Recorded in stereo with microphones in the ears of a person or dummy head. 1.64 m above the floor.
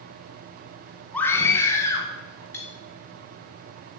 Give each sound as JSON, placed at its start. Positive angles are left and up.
{"t": 1.1, "sound": "a scream", "side_deg": 10, "distance_m": 1.1}
{"t": 2.5, "sound": "cutlery clinking", "side_deg": 15, "distance_m": 1.6}